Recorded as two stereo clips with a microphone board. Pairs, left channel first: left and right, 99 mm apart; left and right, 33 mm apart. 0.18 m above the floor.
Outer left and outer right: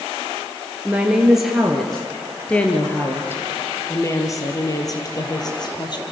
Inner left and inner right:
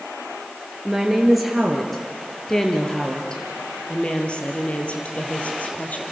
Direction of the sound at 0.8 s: 10° right (ahead or behind).